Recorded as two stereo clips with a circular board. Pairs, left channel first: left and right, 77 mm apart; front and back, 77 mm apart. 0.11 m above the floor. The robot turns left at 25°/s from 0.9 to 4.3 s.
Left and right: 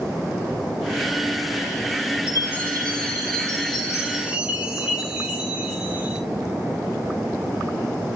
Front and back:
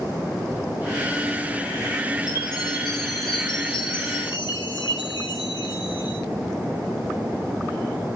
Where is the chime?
40° left, 6.5 m; by 6.2 s 15° right, 6.5 m.